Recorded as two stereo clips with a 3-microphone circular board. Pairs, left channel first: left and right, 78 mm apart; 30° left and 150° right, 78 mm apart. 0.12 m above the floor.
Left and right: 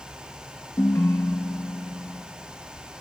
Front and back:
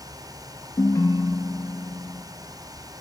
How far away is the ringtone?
About 0.7 m.